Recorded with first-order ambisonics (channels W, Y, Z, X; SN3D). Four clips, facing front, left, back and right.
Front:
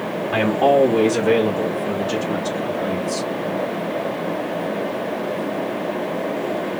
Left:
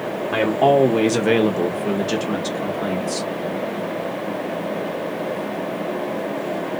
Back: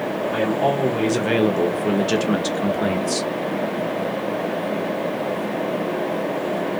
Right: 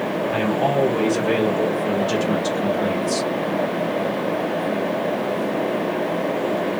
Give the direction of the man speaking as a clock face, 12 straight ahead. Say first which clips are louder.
Left 6 dB, front 6 dB; 10 o'clock.